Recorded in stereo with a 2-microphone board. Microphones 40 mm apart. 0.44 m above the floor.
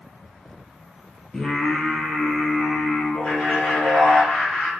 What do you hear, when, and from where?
1.3 s singing: 15° left (ahead or behind), 2.0 m
3.2 s laughter: 50° left (ahead or behind), 4 m